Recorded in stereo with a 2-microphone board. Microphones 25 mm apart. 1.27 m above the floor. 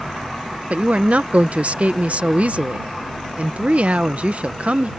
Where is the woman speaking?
60° right (ahead or behind).